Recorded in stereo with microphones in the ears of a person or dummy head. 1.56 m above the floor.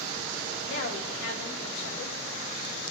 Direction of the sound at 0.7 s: 70° left (ahead or behind).